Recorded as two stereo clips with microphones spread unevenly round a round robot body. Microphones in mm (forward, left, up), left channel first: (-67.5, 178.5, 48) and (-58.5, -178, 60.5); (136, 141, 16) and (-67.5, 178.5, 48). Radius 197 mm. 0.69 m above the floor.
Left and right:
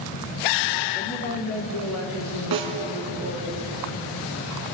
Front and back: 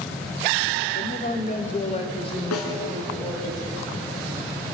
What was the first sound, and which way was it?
A woman speaking, 15° left.